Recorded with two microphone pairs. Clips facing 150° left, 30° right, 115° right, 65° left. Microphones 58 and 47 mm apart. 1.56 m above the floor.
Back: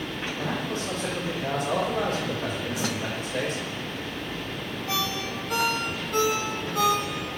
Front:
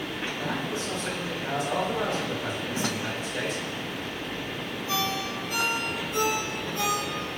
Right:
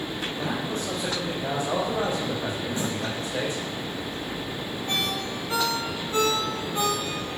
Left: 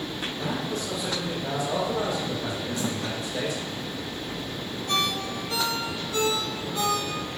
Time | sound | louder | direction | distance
0.4 | a man speaking | back 2 dB, even | 170° right | 2.5 m
2.8 | a snare drum | front 1 dB, even | 65° right | 1.4 m
4.9 | a ringtone | front 1 dB, left 2 dB | straight behind | 2 m